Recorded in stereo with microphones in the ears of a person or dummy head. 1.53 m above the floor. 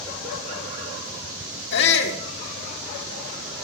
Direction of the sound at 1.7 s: 65° left (ahead or behind).